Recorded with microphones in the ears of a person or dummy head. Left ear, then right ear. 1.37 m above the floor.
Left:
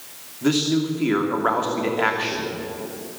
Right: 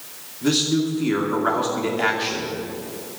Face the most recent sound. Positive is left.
turn(degrees=25)  # may be behind; listen again after turning